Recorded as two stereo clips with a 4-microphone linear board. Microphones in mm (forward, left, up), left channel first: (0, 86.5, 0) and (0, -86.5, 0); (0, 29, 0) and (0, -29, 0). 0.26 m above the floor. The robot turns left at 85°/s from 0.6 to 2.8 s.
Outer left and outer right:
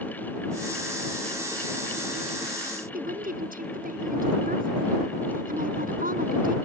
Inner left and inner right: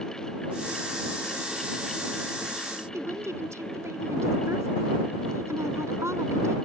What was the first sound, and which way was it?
A woman speaking, 60° right (ahead or behind).